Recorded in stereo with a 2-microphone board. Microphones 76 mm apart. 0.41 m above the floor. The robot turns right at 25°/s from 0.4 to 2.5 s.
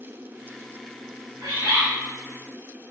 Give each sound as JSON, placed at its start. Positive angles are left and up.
{"t": 1.4, "sound": "a bird", "side_deg": -45, "distance_m": 1.3}